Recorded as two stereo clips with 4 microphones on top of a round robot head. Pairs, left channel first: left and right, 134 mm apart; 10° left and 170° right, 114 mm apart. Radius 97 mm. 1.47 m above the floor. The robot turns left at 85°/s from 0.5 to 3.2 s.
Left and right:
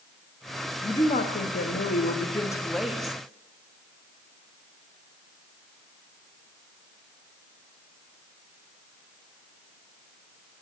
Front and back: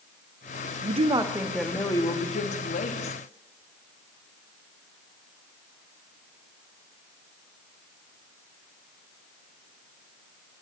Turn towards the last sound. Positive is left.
turn(degrees=-35)